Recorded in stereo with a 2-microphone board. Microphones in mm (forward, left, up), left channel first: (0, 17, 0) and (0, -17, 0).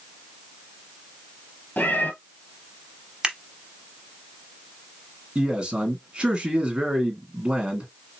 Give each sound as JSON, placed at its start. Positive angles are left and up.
{"t": 1.8, "sound": "a cat meowing", "side_deg": 70, "distance_m": 1.1}
{"t": 3.2, "sound": "scissors", "side_deg": -20, "distance_m": 1.0}
{"t": 5.3, "sound": "a man speaking", "side_deg": -30, "distance_m": 1.7}